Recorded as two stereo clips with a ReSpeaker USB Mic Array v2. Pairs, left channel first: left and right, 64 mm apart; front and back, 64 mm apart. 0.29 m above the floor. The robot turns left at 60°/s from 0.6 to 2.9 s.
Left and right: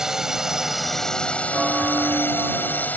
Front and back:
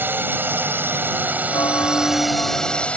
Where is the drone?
165° right; by 3.0 s 55° left.